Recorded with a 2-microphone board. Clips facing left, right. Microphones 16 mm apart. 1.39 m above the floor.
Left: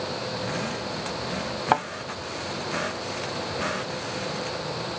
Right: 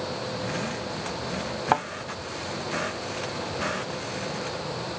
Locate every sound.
1.7 s a thud: 5° left (ahead or behind)